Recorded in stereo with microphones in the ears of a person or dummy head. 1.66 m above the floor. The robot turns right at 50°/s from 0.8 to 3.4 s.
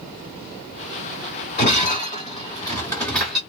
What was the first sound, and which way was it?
Breaking glass, 50° left (ahead or behind).